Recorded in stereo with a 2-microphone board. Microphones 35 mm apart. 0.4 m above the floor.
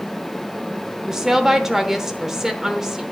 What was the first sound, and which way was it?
A woman speaking, 10° right (ahead or behind).